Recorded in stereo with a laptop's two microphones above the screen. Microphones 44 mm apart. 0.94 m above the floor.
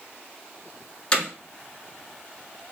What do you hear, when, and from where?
1.1 s hammering: 25° left (ahead or behind), 2.5 m